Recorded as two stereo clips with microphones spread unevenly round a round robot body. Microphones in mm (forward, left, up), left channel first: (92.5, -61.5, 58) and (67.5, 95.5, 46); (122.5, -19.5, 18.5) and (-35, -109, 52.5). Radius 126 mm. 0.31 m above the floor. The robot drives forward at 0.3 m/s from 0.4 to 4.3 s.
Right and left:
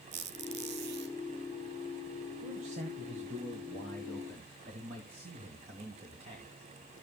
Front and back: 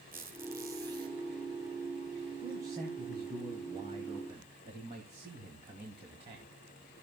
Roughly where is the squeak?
Behind left.